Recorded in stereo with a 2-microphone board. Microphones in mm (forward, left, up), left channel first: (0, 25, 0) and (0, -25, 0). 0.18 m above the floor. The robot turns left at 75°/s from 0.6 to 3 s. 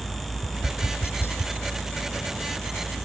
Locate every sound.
0.4 s tapping: 55° left (ahead or behind); by 1.5 s 40° left (ahead or behind)